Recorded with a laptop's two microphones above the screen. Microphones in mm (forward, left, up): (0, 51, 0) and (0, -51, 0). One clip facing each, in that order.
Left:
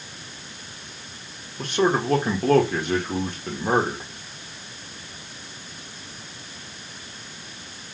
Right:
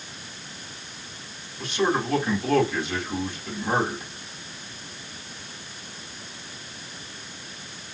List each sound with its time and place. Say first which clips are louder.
1.6 s a man speaking: left 3 dB; 55° left (ahead or behind), 1.7 m